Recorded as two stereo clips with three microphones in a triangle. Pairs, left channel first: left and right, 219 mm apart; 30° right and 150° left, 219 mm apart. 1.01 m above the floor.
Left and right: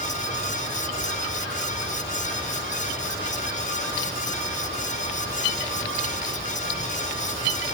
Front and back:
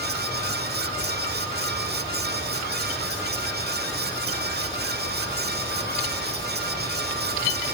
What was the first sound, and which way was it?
Only background noise.